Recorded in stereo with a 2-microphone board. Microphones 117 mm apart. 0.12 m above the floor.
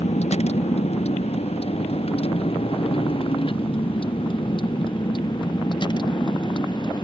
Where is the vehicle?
60° left (ahead or behind); by 7.0 s 35° left (ahead or behind).